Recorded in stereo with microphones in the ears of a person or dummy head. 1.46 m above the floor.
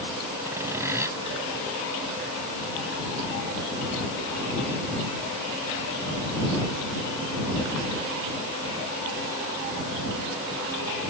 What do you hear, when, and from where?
0.5 s sawing: 15° right (ahead or behind)